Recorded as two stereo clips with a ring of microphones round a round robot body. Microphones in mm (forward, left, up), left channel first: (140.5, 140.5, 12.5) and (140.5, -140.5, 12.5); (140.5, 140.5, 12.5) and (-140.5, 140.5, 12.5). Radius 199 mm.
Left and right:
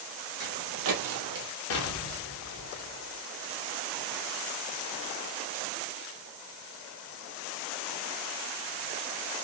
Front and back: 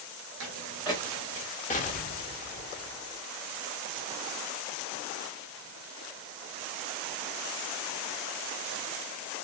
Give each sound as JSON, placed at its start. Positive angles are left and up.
{"t": 0.4, "sound": "footsteps", "azimuth_deg": -150, "distance_m": 0.6}
{"t": 1.7, "sound": "an explosion", "azimuth_deg": 65, "distance_m": 0.7}